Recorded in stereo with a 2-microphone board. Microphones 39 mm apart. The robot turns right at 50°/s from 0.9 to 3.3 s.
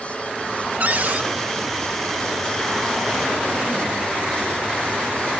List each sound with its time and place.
0.8 s a cupboard door: 50° right (ahead or behind); by 1.3 s 45° right (ahead or behind)